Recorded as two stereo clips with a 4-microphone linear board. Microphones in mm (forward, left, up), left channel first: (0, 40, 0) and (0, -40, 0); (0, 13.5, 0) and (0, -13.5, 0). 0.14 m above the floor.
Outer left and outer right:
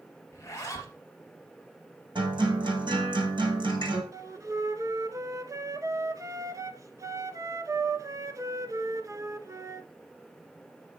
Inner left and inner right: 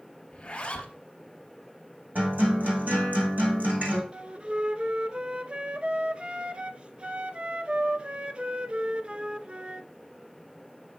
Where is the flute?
45° right (ahead or behind), 0.7 m.